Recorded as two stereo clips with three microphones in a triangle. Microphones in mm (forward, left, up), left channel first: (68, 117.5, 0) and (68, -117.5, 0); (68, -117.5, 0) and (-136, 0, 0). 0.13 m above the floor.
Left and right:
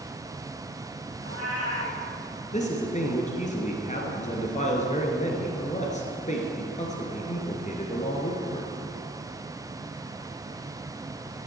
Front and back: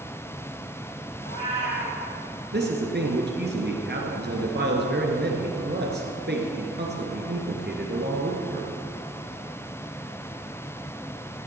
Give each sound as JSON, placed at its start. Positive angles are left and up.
{"t": 1.2, "sound": "a cat meowing", "azimuth_deg": -75, "distance_m": 4.0}
{"t": 2.5, "sound": "a man speaking", "azimuth_deg": 135, "distance_m": 1.9}